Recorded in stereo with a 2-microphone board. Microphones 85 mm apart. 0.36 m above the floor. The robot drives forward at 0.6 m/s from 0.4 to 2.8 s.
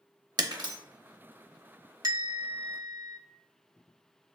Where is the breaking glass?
55° right (ahead or behind), 0.7 m; by 0.8 s 50° right (ahead or behind), 0.7 m.